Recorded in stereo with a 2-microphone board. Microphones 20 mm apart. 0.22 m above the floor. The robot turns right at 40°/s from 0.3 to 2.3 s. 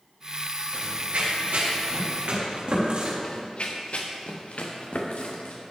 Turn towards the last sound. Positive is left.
turn(degrees=75)  # may be behind; listen again after turning